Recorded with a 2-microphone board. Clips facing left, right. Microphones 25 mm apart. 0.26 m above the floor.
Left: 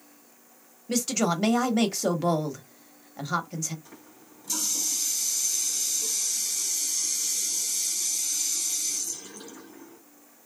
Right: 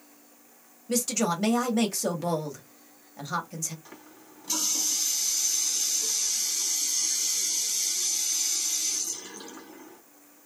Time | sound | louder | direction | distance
0.9 | a woman speaking | left 1 dB | 15° left (ahead or behind) | 0.9 m
3.9 | a running tap | right 1 dB | 25° right (ahead or behind) | 1.6 m